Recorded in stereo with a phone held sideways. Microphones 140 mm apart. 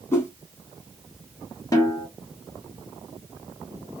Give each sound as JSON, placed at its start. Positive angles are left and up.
{"t": 0.1, "sound": "a whoosh", "side_deg": 20, "distance_m": 1.6}
{"t": 1.7, "sound": "a snare drum", "side_deg": 25, "distance_m": 1.0}